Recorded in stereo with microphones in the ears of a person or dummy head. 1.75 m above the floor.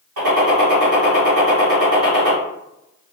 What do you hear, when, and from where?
0.2 s a gunshot: 65° right (ahead or behind), 2.0 m